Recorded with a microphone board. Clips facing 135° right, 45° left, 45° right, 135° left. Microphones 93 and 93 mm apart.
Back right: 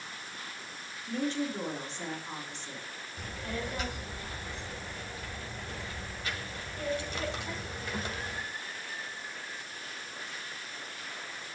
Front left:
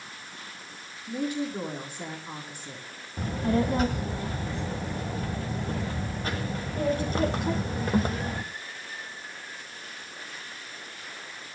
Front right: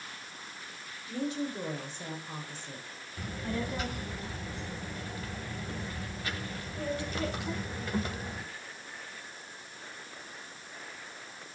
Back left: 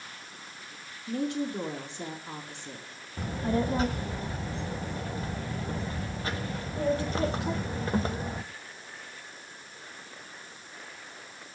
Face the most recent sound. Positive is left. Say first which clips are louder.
# front left 12 dB, back left 7 dB
turn(degrees=85)